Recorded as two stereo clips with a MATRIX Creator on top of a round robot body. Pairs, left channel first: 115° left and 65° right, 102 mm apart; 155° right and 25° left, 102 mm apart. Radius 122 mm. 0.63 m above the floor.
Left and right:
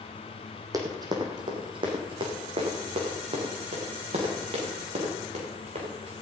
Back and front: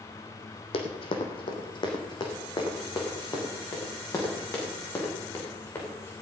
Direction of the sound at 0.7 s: 125° right.